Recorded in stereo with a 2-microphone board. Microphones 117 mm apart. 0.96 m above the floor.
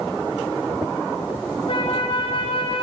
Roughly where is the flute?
Left.